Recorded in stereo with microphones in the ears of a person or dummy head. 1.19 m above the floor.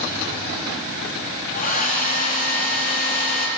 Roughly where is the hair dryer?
Left.